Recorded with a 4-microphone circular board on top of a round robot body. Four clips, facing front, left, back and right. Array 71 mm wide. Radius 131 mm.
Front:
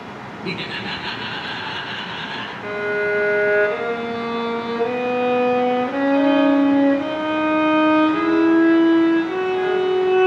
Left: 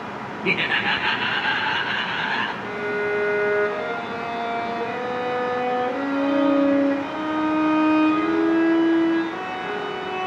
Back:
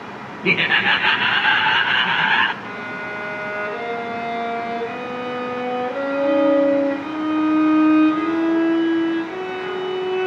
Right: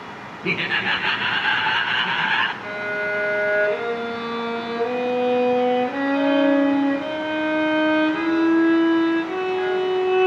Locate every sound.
0.4 s laughter: 175° left, 2 m; by 2.5 s 165° right, 3.5 m
2.6 s a violin: 20° right, 8.5 m